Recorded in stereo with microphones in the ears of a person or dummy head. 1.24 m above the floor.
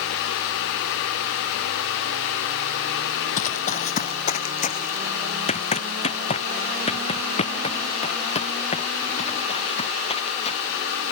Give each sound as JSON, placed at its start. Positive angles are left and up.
{"t": 3.4, "sound": "running footsteps", "side_deg": 40}